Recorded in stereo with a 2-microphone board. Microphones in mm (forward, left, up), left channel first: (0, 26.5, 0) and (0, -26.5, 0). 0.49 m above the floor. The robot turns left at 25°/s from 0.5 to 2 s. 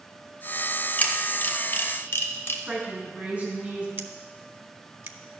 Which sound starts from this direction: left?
A camera shutter, at 1.0 s.